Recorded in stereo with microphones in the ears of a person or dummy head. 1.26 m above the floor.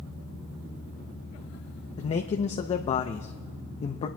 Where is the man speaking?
35° left (ahead or behind), 0.6 m.